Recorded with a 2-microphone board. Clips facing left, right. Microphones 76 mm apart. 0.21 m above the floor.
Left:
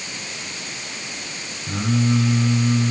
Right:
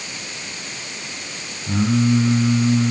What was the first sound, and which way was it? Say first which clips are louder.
Singing: right 3 dB; 15° right (ahead or behind).